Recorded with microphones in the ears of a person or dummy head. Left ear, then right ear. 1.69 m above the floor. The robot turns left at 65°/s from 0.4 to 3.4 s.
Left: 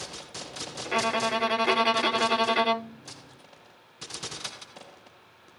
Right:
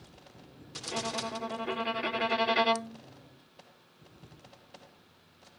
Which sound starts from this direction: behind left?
A violin, at 0.8 s.